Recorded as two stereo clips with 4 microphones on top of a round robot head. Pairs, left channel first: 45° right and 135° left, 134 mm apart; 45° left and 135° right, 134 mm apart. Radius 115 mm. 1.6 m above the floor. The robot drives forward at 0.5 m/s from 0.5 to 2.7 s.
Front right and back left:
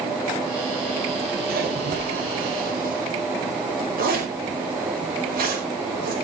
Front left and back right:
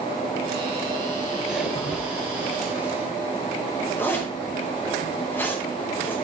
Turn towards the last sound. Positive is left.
turn(degrees=125)